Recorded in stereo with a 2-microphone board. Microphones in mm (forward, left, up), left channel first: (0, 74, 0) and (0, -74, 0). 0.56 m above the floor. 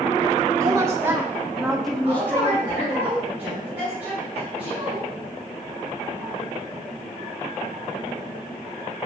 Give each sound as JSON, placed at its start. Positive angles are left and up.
{"t": 0.6, "sound": "a woman speaking", "side_deg": -20, "distance_m": 1.7}
{"t": 2.0, "sound": "a woman speaking", "side_deg": -10, "distance_m": 4.5}